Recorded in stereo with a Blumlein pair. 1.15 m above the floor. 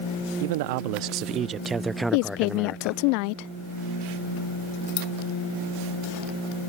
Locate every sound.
0.4 s a man speaking: 55° right; by 3.0 s 30° left
2.1 s a woman speaking: 45° left